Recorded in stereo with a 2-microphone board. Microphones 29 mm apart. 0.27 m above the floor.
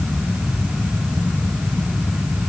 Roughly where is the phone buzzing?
No phone buzzing in this recording.